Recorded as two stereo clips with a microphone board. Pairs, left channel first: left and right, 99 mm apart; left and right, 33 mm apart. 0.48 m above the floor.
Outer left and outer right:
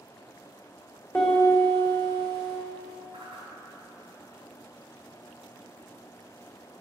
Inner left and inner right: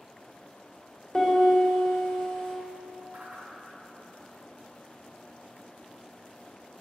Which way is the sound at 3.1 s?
75° right (ahead or behind).